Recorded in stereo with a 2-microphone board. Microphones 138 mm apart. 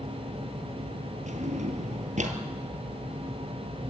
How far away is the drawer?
About 2 m.